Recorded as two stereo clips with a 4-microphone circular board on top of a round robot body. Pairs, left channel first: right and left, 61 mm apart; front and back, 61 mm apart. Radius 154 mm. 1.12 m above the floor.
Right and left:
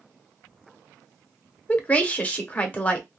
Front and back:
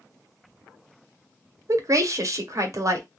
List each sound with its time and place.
1.7 s a woman speaking: 155° right, 0.9 m